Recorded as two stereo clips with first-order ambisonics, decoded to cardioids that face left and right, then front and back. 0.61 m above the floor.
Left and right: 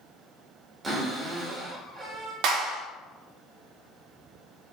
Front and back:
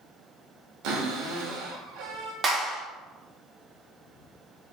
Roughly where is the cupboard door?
Behind.